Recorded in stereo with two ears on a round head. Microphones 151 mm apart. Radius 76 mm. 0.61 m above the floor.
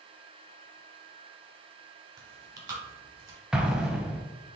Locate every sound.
2.2 s chewing: 25° right (ahead or behind), 1.3 m
3.5 s an explosion: 5° right (ahead or behind), 0.5 m